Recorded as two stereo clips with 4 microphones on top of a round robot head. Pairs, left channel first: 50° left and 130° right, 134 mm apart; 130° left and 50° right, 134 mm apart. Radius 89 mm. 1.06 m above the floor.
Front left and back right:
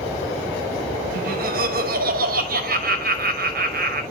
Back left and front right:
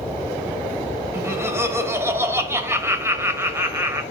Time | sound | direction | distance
1.1 | laughter | 125° right | 2 m